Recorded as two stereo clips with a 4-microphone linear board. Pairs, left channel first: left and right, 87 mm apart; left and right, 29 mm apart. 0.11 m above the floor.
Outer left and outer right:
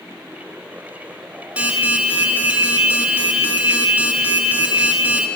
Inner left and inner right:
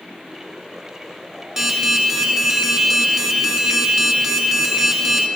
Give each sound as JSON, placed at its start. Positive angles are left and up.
{"t": 1.6, "sound": "an alarm", "side_deg": -15, "distance_m": 1.8}